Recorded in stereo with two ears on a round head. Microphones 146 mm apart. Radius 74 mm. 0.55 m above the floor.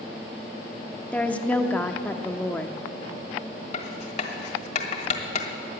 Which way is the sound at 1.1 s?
10° left (ahead or behind).